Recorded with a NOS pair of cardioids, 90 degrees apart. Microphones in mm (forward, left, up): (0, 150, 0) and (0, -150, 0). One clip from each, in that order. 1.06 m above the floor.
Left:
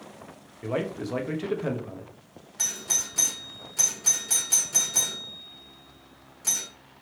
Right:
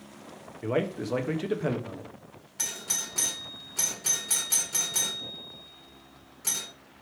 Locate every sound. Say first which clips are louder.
0.6 s a man speaking: right 1 dB; 10° right, 0.8 m
2.6 s a doorbell: left 4 dB; 5° right, 1.6 m